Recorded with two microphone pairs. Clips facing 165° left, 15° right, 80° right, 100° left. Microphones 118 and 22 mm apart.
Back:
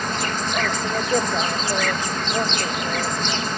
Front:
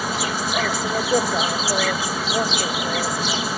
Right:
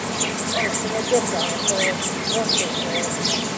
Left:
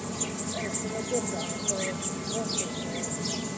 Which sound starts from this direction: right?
An insect, at 0.0 s.